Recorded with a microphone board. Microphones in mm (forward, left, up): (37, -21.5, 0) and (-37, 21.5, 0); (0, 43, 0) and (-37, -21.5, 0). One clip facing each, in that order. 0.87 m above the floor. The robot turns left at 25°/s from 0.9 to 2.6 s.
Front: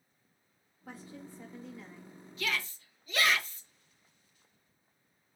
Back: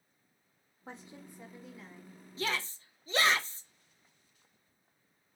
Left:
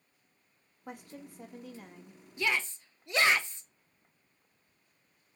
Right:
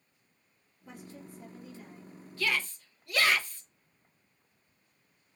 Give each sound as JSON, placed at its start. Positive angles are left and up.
{"t": 0.9, "sound": "a woman speaking", "azimuth_deg": 85, "distance_m": 1.3}
{"t": 2.4, "sound": "a shout", "azimuth_deg": 120, "distance_m": 0.7}